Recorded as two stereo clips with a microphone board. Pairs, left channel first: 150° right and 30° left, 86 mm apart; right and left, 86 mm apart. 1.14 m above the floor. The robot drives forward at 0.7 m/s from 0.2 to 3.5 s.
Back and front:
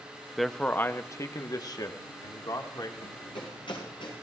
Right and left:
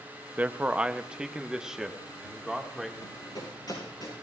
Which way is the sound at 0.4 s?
115° left.